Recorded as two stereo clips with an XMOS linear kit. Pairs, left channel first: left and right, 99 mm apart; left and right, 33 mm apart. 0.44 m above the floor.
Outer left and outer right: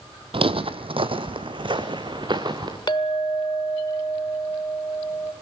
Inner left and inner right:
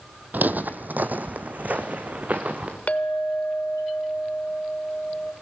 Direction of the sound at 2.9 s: 50° left (ahead or behind).